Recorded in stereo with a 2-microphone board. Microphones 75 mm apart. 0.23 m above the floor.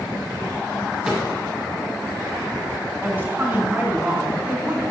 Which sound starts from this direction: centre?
A cupboard door, at 1.1 s.